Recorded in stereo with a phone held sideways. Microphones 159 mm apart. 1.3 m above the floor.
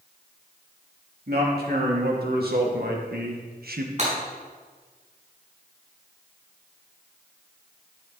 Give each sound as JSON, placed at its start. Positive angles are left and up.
{"t": 1.3, "sound": "a man speaking", "side_deg": -80, "distance_m": 3.0}
{"t": 4.0, "sound": "breaking glass", "side_deg": -45, "distance_m": 5.5}